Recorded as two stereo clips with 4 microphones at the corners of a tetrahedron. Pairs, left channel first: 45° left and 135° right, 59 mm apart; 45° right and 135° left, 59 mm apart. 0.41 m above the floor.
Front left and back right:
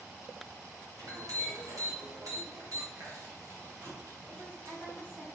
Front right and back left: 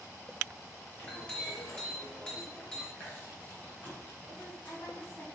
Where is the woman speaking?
85° right, 3 m.